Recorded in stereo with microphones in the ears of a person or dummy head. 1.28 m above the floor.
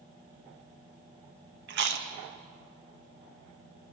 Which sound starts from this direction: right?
Chewing, at 1.7 s.